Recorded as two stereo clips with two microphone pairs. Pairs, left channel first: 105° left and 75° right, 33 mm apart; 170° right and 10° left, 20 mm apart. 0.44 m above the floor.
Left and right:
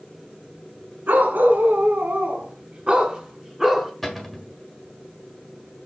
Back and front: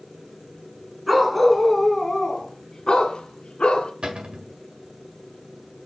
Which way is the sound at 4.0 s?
15° left.